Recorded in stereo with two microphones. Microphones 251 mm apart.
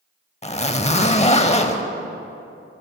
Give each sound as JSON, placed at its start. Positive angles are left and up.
{"t": 0.4, "sound": "a zipper", "side_deg": 25, "distance_m": 0.6}